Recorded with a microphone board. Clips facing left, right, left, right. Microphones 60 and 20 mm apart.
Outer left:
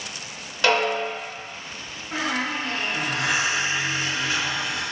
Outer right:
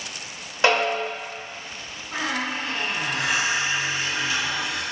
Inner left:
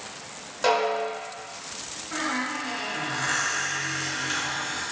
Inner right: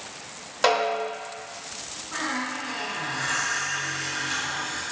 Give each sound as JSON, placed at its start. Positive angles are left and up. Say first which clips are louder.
{"t": 0.6, "sound": "a snare drum", "louder": "even, inner right 1 dB", "side_deg": -25, "distance_m": 0.7}
{"t": 2.1, "sound": "a squeak", "louder": "outer left 1 dB, inner left 1 dB", "side_deg": 55, "distance_m": 1.1}